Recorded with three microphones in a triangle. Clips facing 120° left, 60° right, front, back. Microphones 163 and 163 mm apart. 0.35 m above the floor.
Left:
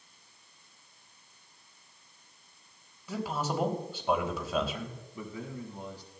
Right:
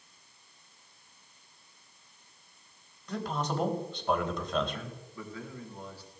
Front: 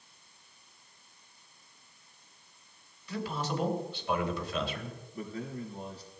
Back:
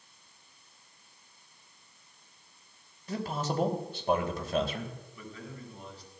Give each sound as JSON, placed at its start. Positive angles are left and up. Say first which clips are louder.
{"t": 3.1, "sound": "a man speaking", "louder": "even, back 1 dB", "azimuth_deg": -160, "distance_m": 2.0}
{"t": 5.1, "sound": "a man speaking", "louder": "left 3 dB, front 6 dB", "azimuth_deg": 50, "distance_m": 4.0}